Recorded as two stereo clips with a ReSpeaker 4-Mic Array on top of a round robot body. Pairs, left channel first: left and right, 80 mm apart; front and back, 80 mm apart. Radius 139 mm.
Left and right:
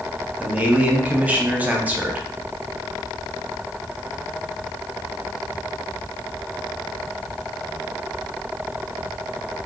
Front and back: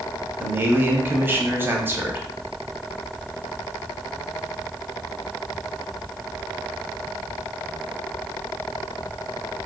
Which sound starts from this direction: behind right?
A man speaking, at 0.4 s.